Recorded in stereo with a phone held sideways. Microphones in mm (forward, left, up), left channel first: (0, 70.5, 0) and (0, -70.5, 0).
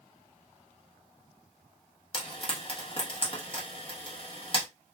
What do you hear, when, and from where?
2.1 s frying: 40° left (ahead or behind), 1.1 m